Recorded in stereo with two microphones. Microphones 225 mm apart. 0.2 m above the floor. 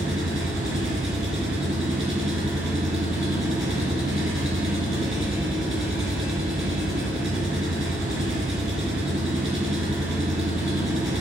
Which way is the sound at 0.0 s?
65° right (ahead or behind).